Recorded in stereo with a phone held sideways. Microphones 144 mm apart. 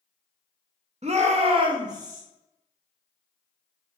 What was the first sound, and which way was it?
A shout, 50° right (ahead or behind).